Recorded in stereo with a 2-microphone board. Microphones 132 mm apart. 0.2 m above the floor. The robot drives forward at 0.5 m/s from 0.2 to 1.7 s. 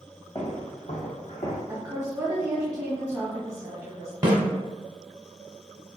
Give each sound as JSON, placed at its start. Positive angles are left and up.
{"t": 0.3, "sound": "footsteps", "side_deg": 25, "distance_m": 1.0}
{"t": 1.7, "sound": "a woman speaking", "side_deg": -25, "distance_m": 1.4}
{"t": 4.2, "sound": "a snare drum", "side_deg": -30, "distance_m": 0.8}